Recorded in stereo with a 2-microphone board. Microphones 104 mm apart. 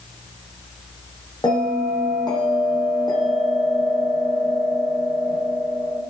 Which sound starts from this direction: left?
A bell, at 1.4 s.